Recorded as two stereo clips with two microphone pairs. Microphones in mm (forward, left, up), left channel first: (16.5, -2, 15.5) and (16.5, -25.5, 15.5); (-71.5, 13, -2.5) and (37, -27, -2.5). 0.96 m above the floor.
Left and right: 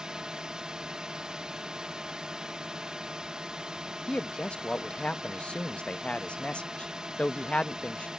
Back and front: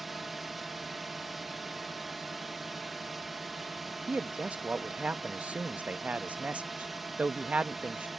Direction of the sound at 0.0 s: 110° right.